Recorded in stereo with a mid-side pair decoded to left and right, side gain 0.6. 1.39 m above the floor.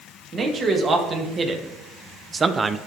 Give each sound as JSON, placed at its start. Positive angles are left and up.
{"t": 0.3, "sound": "a man speaking", "azimuth_deg": -35, "distance_m": 1.9}